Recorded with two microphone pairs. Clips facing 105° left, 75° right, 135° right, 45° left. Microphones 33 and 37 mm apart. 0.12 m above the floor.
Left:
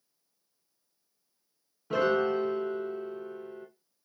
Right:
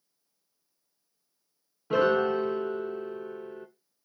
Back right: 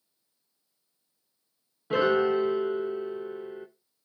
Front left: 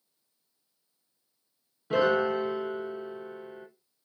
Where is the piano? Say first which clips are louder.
Right 2 dB, back right 1 dB; 85° right, 0.7 m.